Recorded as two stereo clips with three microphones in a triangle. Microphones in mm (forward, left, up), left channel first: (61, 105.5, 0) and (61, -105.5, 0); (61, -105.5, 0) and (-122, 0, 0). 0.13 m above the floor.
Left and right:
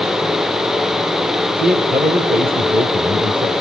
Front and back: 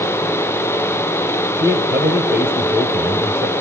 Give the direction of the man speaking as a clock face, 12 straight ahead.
4 o'clock.